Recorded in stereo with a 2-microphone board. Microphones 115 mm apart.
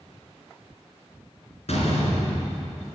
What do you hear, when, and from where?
1.7 s a door slam: 70° left (ahead or behind), 1.9 m